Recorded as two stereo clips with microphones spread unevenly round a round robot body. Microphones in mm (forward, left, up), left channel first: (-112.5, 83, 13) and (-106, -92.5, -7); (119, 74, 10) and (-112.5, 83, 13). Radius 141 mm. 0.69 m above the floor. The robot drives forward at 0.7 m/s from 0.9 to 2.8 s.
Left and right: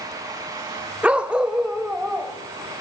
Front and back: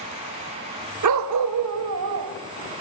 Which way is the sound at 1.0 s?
170° right.